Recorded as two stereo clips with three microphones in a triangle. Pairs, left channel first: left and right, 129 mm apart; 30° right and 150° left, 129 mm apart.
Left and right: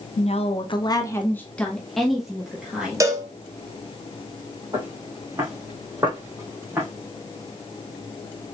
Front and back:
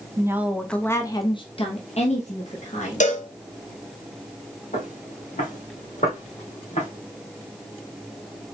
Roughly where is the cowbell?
Ahead right.